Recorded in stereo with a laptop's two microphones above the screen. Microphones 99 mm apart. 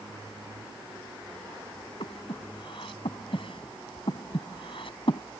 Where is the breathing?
65° left (ahead or behind).